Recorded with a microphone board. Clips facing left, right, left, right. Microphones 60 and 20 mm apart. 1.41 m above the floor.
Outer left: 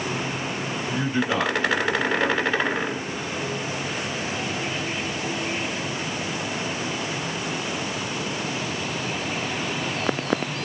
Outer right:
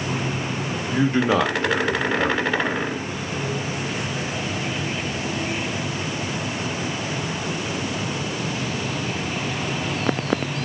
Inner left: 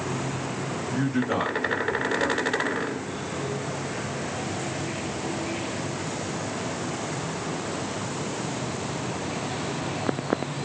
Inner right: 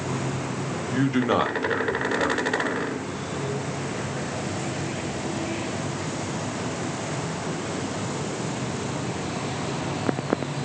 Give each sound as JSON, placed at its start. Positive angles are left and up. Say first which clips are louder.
{"t": 0.9, "sound": "a man speaking", "louder": "outer right 6 dB, inner right 4 dB", "side_deg": -80, "distance_m": 1.3}